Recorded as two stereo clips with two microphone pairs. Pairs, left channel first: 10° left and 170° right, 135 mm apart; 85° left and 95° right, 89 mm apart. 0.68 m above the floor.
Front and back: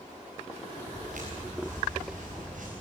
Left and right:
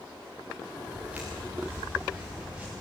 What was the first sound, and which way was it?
Footsteps, 170° right.